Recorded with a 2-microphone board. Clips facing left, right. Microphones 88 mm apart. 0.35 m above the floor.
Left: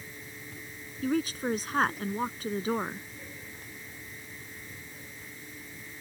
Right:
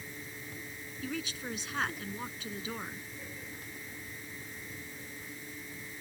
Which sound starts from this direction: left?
A woman speaking, at 1.0 s.